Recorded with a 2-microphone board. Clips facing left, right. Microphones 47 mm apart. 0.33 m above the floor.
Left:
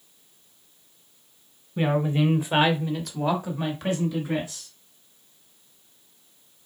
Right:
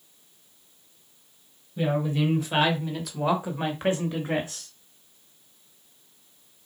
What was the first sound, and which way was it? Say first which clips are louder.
A woman speaking: left 2 dB; 40° left (ahead or behind).